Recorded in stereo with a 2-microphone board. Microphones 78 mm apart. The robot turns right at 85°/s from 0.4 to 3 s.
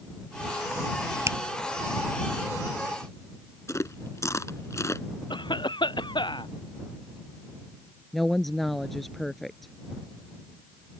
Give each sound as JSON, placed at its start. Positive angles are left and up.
{"t": 1.3, "sound": "a finger snap", "side_deg": -40}
{"t": 3.7, "sound": "chewing", "side_deg": 40}
{"t": 5.3, "sound": "a cough", "side_deg": 85}
{"t": 8.1, "sound": "a woman speaking", "side_deg": 0}